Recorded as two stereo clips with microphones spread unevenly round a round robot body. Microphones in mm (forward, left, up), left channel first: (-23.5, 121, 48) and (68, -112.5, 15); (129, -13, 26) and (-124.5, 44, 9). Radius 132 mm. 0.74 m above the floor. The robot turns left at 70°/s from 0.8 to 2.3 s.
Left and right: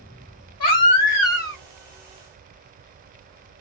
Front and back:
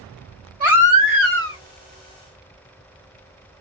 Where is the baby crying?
105° left, 1.6 m; by 1.6 s 50° left, 1.6 m.